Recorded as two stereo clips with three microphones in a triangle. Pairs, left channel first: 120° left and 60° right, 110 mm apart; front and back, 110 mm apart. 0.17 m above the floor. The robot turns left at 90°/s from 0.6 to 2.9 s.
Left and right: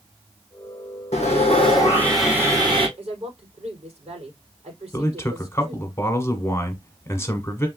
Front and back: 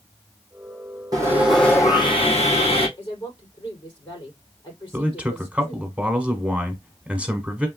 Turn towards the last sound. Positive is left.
turn(degrees=120)